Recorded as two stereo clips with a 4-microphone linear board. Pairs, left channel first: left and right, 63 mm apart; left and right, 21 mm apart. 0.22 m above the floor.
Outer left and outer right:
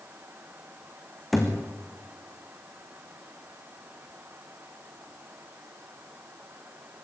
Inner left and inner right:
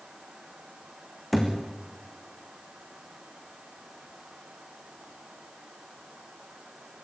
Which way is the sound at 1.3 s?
Centre (ahead or behind).